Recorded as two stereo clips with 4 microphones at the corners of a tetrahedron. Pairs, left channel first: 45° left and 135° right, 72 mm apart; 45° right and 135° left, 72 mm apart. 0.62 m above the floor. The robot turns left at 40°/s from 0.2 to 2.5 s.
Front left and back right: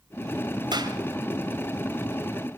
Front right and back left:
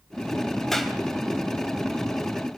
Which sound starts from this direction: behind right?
A clap, at 0.7 s.